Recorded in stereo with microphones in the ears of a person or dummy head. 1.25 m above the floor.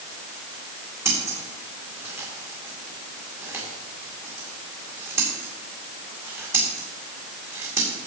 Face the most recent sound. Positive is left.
turn(degrees=-15)  # may be behind; listen again after turning